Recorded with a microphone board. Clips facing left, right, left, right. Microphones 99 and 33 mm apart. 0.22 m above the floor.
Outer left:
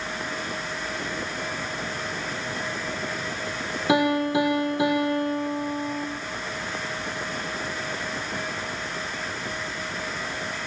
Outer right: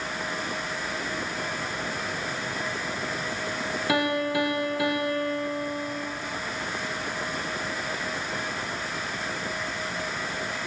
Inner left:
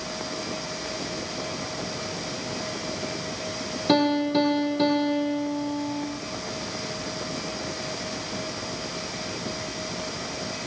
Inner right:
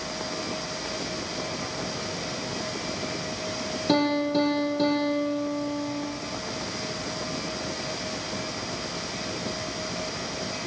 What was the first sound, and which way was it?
A piano, 25° left (ahead or behind).